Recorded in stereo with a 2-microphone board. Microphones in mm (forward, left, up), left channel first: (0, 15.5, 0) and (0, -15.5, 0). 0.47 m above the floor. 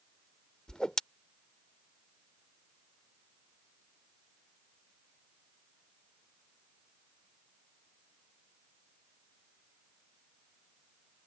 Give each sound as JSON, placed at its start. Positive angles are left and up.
{"t": 0.7, "sound": "a whoosh", "side_deg": 20}